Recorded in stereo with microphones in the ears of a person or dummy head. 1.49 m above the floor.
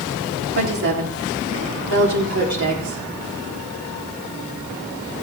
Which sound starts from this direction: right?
A woman speaking, at 0.5 s.